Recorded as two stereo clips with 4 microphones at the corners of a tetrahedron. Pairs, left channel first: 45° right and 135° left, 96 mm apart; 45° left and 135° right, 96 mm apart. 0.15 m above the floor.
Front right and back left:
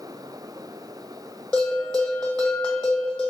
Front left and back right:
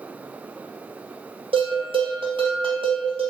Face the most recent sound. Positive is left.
turn(degrees=-125)